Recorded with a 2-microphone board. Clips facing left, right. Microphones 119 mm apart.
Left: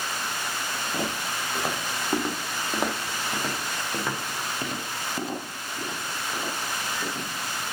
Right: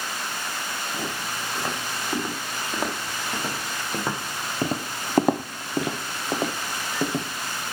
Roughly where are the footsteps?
Centre.